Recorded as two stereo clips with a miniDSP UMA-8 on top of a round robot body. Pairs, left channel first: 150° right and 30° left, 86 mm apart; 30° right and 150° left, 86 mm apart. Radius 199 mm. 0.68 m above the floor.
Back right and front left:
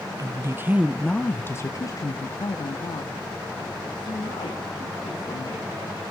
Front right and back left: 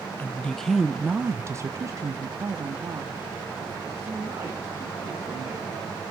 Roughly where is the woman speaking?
Ahead left.